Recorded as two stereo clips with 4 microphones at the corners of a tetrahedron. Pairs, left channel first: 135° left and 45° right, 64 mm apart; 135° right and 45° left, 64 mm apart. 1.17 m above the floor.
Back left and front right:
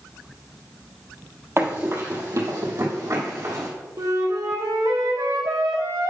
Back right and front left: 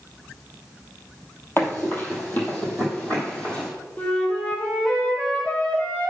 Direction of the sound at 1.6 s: 90° right.